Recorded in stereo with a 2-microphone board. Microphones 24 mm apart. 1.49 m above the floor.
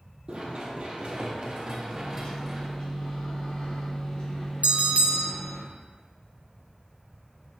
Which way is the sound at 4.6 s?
80° right.